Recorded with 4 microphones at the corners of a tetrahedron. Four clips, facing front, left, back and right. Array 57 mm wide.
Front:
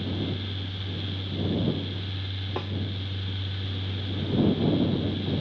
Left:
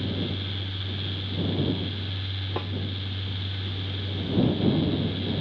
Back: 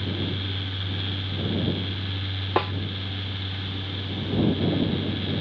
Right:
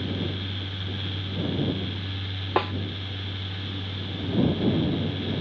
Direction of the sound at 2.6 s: 135° right.